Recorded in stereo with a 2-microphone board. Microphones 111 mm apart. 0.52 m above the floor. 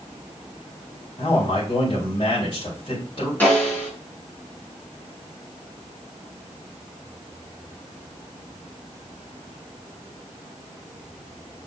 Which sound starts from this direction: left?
A man speaking, at 1.2 s.